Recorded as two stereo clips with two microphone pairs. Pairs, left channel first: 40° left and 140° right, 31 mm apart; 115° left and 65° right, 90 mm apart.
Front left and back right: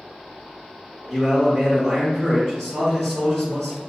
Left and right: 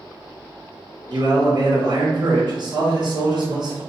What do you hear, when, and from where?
1.1 s a man speaking: 55° right, 1.9 m